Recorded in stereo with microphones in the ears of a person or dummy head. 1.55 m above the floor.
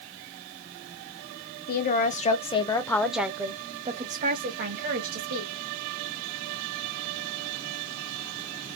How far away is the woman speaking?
About 1.2 m.